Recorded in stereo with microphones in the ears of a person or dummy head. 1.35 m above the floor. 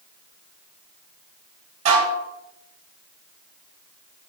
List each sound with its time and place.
1.9 s dishes clattering: 35° right (ahead or behind), 1.3 m